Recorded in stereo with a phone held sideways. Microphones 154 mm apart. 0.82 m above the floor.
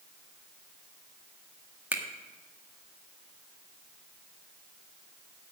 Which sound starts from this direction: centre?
A finger snap, at 1.9 s.